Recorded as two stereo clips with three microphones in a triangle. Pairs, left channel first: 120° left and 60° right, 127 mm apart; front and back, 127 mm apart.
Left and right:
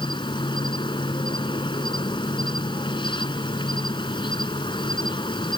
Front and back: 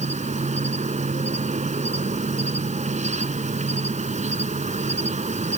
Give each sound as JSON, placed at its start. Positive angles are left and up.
{"t": 0.0, "sound": "an insect", "azimuth_deg": 170}